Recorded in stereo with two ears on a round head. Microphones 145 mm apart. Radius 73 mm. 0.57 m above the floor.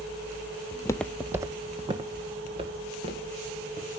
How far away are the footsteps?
About 0.6 m.